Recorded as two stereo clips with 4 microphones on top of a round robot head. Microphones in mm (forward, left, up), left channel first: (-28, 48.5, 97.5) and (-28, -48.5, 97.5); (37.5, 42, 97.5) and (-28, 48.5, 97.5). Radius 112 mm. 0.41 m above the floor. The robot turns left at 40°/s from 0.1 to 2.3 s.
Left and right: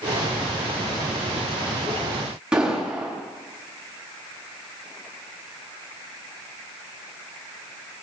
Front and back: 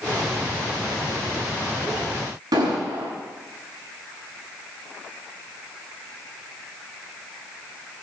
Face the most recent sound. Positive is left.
turn(degrees=-170)